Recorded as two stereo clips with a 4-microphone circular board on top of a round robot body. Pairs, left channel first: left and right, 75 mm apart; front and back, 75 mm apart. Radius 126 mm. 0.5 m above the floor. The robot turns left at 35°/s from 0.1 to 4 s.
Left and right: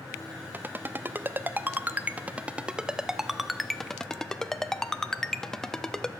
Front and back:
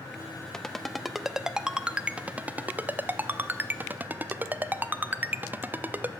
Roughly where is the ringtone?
Right.